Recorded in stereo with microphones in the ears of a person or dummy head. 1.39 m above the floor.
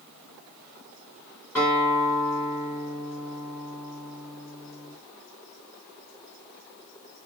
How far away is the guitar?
About 3 m.